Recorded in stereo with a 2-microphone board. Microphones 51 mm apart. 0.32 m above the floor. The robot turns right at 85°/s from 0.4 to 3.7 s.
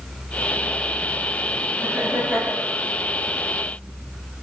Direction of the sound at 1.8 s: 80° right.